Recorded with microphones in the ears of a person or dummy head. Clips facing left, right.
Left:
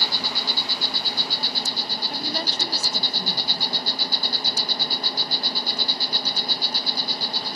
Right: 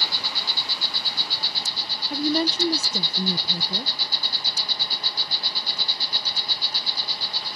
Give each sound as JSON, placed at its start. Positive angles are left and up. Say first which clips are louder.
{"t": 0.0, "sound": "an insect", "louder": "left 4 dB", "side_deg": 40}
{"t": 2.1, "sound": "a woman speaking", "louder": "right 10 dB", "side_deg": -70}